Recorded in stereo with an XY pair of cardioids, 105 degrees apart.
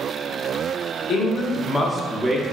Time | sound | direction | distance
1.1 | a man speaking | 60° left | 0.8 m